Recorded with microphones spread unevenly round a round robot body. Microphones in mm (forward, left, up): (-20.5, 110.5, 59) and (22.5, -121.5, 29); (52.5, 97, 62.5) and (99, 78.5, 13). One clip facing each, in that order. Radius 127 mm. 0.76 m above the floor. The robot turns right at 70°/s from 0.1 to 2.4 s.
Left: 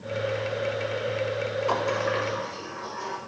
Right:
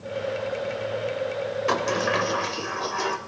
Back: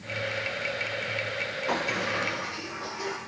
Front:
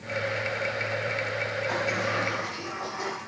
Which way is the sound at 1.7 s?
145° right.